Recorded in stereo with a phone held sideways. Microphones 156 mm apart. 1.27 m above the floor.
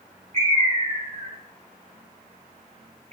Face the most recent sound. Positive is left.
turn(degrees=-45)  # may be behind; listen again after turning